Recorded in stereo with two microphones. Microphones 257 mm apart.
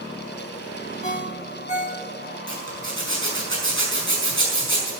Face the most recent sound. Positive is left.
turn(degrees=-50)  # may be behind; listen again after turning